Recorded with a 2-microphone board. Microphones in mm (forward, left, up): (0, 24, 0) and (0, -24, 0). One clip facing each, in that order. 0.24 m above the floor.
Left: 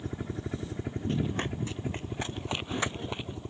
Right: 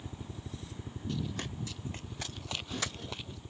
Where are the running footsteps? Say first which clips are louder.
Left 6 dB; 40° left (ahead or behind); by 3.4 s 25° left (ahead or behind).